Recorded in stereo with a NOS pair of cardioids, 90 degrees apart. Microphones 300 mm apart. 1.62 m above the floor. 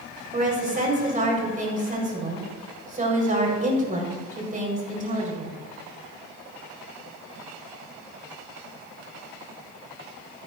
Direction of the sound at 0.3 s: 25° right.